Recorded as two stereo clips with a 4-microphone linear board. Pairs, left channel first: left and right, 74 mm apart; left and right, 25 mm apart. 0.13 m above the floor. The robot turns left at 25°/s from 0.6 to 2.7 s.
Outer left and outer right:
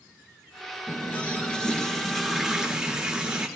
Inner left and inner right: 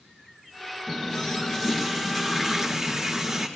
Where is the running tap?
30° left, 1.4 m; by 3.5 s 15° right, 1.4 m.